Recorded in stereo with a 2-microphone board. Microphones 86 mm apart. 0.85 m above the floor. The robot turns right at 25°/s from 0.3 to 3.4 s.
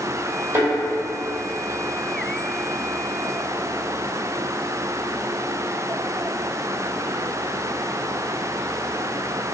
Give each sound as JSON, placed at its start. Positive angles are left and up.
{"t": 0.5, "sound": "a thud", "side_deg": -30, "distance_m": 1.6}